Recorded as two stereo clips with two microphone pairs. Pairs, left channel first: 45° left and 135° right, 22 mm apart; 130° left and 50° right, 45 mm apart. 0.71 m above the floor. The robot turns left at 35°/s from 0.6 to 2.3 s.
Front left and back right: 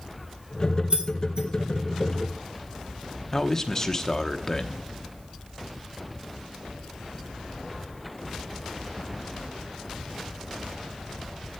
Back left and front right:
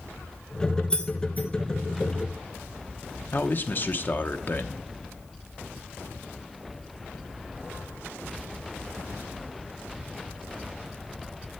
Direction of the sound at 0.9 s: 165° right.